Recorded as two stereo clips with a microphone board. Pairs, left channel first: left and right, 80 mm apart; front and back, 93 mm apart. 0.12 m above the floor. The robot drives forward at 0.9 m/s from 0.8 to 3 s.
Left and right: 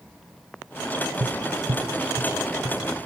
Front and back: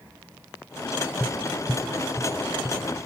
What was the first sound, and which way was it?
Tapping, 90° right.